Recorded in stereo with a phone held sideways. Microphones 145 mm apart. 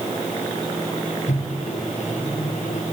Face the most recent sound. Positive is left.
turn(degrees=70)  # may be behind; listen again after turning